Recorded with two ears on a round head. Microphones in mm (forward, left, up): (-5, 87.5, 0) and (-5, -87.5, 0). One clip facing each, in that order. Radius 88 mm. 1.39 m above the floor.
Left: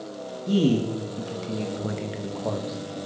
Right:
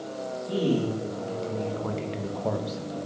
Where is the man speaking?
60° left (ahead or behind), 2.5 m; by 3.1 s 25° right (ahead or behind), 1.9 m.